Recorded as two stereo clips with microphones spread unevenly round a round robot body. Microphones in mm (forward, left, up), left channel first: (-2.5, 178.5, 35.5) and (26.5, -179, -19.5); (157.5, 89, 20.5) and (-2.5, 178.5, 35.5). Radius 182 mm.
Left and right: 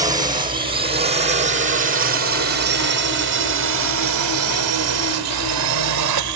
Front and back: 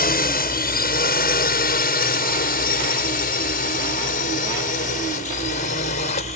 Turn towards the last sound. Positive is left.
turn(degrees=-80)